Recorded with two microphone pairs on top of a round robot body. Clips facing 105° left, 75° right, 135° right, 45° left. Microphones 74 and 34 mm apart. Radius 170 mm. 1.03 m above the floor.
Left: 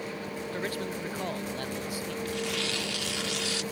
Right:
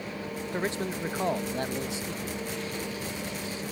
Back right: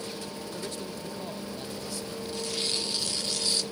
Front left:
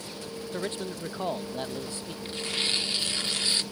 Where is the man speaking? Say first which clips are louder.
Right 4 dB, front left 7 dB; 10° right.